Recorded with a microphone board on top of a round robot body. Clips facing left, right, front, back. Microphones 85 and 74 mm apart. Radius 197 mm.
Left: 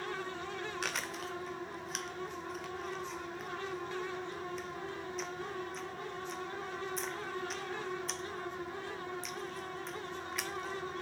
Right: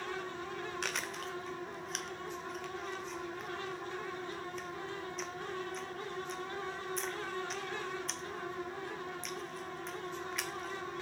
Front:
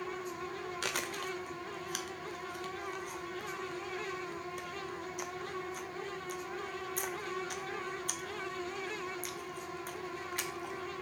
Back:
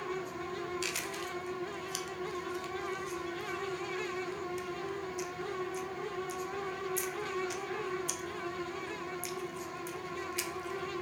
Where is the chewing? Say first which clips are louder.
Even, front 1 dB; straight ahead, 1.4 m.